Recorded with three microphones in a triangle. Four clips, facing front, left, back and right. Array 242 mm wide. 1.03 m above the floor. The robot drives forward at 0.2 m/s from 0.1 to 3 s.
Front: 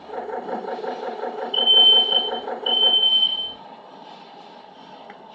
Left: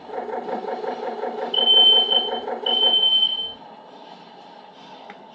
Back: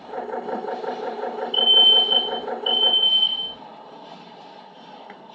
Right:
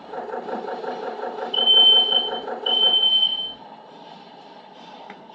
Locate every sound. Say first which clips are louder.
1.5 s a fire alarm: even, front 1 dB; 165° right, 2.5 m